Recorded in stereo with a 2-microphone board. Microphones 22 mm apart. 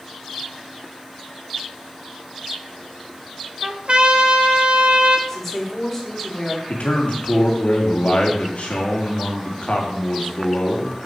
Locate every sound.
3.6 s a trumpet: 45° right (ahead or behind), 0.9 m
5.3 s a woman speaking: 20° left (ahead or behind), 2.5 m
6.7 s a man speaking: 85° left, 2 m